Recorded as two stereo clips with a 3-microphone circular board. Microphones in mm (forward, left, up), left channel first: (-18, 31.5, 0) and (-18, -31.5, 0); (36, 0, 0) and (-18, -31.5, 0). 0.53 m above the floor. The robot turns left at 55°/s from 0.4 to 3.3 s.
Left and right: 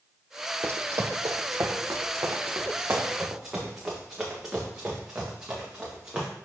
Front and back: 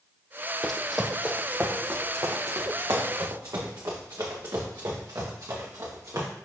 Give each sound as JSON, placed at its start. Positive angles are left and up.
{"t": 0.6, "sound": "running footsteps", "azimuth_deg": -50, "distance_m": 0.9}